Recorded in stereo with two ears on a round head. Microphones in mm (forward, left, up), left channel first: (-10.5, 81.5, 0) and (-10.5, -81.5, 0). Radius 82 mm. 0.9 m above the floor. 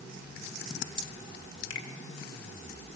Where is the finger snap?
80° left, 2 m.